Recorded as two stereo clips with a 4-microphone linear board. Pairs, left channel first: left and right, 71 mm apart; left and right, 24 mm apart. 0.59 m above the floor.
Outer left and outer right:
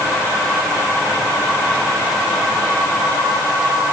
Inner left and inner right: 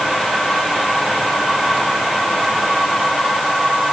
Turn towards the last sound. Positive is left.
No sound to turn to.